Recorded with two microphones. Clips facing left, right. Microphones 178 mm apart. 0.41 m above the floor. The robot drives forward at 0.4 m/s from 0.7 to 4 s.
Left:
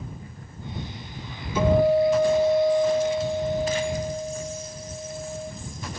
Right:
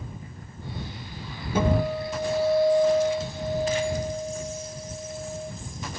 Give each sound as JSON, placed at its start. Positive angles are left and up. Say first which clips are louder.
{"t": 1.6, "sound": "a guitar", "louder": "left 6 dB", "side_deg": -55, "distance_m": 3.5}